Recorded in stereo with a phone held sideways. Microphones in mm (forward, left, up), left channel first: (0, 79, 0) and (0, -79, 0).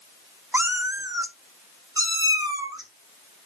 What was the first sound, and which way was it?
A cat meowing, 15° right (ahead or behind).